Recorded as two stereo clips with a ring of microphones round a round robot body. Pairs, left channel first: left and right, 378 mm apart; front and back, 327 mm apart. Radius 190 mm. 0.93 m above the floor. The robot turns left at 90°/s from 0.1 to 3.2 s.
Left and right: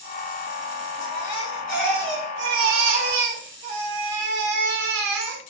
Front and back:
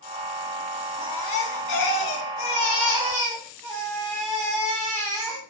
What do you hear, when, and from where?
1.0 s a baby crying: 100° left, 2.5 m; by 5.4 s 100° right, 2.5 m